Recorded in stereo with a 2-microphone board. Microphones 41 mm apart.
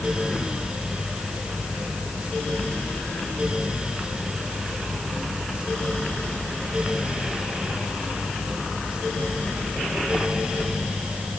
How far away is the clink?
I don't hear a clink.